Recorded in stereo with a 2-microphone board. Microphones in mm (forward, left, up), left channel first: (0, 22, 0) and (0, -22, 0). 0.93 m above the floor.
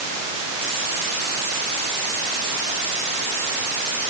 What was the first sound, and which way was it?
Only background noise.